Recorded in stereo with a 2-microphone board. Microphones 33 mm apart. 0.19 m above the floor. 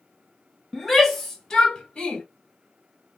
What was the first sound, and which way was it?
A shout, 10° right (ahead or behind).